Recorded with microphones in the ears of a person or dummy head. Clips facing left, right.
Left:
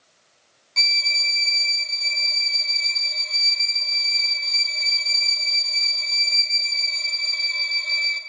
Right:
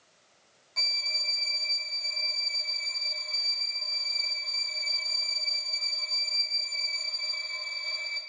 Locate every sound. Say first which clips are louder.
0.8 s a violin: left 6 dB; 40° left (ahead or behind), 1.1 m